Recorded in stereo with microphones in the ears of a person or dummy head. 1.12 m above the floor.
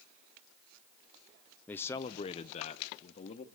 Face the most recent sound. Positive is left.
turn(degrees=50)  # may be behind; listen again after turning